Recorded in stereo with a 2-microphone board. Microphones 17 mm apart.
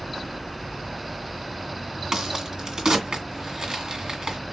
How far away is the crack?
About 1.9 m.